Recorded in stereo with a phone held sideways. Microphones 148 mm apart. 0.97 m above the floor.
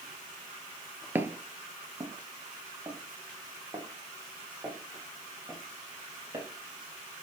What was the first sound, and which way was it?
Footsteps, 15° right (ahead or behind).